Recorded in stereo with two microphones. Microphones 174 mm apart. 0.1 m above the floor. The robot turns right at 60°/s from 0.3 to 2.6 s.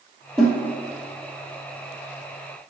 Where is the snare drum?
5° left (ahead or behind), 2.5 m; by 0.6 s 5° right (ahead or behind), 2.5 m.